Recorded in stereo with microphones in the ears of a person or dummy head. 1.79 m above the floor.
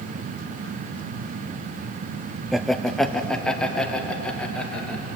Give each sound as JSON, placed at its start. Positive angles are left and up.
{"t": 2.5, "sound": "laughter", "side_deg": 0, "distance_m": 0.7}